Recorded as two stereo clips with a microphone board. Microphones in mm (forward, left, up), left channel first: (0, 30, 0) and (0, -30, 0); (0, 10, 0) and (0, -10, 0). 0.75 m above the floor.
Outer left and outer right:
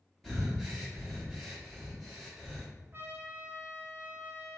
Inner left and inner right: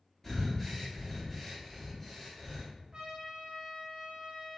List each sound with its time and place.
0.2 s breathing: centre (ahead or behind), 0.9 m
2.9 s a trumpet: 35° right (ahead or behind), 0.5 m